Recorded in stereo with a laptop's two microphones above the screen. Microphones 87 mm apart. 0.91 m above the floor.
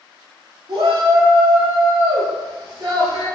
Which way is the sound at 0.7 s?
70° right (ahead or behind).